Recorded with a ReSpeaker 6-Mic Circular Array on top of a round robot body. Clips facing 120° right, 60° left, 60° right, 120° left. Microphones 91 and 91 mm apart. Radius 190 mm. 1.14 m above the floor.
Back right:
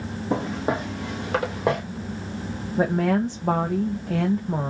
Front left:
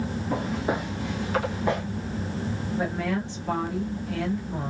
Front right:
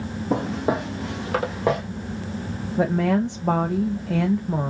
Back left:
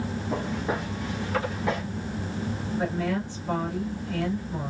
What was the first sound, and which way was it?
Footsteps, 60° right.